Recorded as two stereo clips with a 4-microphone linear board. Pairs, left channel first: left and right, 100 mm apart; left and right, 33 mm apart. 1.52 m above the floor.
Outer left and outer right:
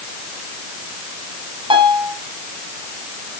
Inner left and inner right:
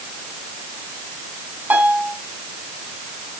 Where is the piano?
60° right (ahead or behind), 2.5 m.